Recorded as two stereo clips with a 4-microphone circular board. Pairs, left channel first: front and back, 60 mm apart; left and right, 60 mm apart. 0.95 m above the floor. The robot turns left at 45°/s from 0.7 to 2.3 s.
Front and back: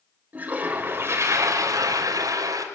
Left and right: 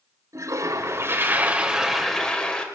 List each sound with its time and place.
0.3 s a toilet flushing: 115° right, 3.5 m; by 2.6 s 170° left, 3.5 m